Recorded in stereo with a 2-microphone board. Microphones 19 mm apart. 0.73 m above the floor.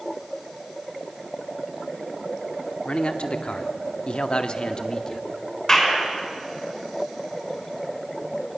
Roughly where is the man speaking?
Left.